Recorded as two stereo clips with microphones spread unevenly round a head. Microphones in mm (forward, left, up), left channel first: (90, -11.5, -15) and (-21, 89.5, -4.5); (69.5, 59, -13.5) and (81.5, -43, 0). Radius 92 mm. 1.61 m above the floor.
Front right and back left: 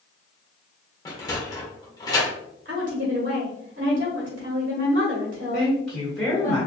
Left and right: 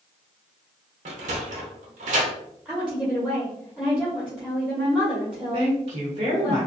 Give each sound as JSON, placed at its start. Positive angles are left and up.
{"t": 1.1, "sound": "a sliding door", "azimuth_deg": -115, "distance_m": 0.8}
{"t": 2.6, "sound": "a woman speaking", "azimuth_deg": -170, "distance_m": 1.4}
{"t": 5.5, "sound": "a woman speaking", "azimuth_deg": -130, "distance_m": 1.7}